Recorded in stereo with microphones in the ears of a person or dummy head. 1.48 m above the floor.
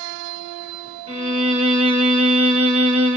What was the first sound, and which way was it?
A violin, 35° right (ahead or behind).